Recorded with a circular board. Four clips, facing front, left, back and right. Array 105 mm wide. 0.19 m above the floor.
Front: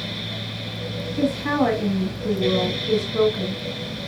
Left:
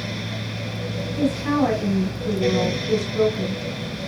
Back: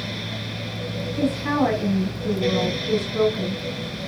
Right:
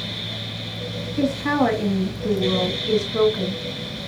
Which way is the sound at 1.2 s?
80° right.